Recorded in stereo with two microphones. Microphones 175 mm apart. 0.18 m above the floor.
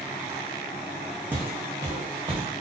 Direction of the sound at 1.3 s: 10° right (ahead or behind).